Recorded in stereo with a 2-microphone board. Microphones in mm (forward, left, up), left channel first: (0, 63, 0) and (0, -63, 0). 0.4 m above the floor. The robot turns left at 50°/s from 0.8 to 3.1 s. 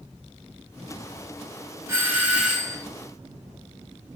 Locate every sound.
1.9 s a doorbell: 20° right (ahead or behind), 1.5 m; by 2.8 s 5° left (ahead or behind), 1.5 m